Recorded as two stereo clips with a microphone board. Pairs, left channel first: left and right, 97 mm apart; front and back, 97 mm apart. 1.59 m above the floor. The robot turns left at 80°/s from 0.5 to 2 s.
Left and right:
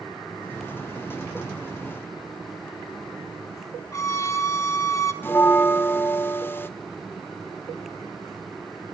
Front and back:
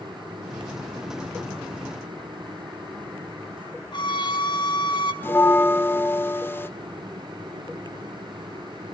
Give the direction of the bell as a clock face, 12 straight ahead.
10 o'clock.